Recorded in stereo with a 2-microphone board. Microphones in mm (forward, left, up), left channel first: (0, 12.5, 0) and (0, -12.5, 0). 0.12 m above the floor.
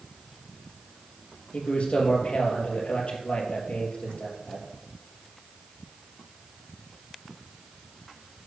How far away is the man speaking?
About 3 m.